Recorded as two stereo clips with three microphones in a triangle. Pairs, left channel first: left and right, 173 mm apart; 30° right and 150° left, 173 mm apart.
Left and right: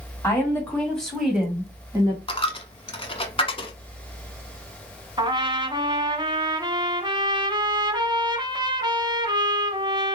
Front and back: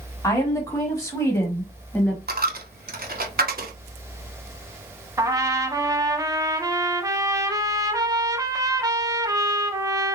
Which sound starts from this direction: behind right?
A trumpet, at 5.2 s.